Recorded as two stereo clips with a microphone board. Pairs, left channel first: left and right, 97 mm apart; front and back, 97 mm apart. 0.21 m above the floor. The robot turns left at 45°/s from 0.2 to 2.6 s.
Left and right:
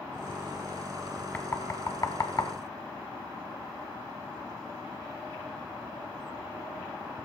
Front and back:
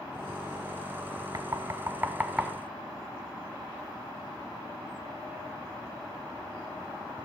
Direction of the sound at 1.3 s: 155° left.